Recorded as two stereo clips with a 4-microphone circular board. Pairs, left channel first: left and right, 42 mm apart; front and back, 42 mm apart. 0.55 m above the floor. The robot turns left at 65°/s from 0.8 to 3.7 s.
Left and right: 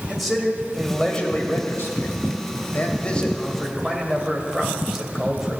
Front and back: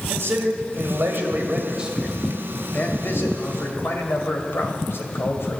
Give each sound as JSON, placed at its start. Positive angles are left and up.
{"t": 0.1, "sound": "a man speaking", "azimuth_deg": 180, "distance_m": 2.5}